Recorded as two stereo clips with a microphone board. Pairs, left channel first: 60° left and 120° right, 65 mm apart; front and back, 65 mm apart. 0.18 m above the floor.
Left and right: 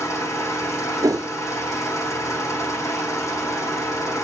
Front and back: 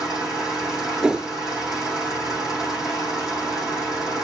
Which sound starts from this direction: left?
An engine running, at 0.0 s.